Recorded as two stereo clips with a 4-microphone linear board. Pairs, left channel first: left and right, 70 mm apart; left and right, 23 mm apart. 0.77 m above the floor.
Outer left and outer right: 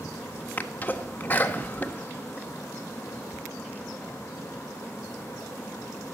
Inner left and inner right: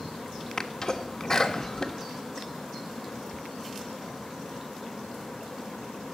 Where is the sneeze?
25° left (ahead or behind), 1.3 m.